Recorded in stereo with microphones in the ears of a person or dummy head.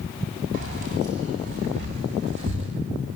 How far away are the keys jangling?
About 8.5 m.